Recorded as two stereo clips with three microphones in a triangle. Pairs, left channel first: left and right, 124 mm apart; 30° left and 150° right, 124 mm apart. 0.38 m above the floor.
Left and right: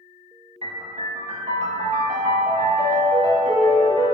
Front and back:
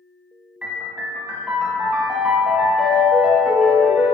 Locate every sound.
0.6 s a piano: 65° right, 0.5 m